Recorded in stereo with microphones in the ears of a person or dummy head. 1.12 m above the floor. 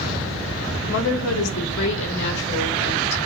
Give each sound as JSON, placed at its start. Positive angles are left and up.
{"t": 0.9, "sound": "a woman speaking", "side_deg": 60, "distance_m": 0.6}